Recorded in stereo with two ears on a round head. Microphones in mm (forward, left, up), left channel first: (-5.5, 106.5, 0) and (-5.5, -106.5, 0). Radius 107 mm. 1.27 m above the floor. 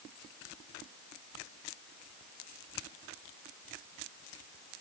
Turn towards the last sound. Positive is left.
No sound to turn to.